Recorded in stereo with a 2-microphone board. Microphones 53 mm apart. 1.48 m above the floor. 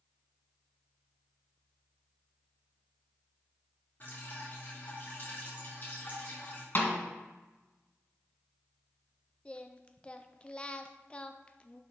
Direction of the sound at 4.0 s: 40° left (ahead or behind).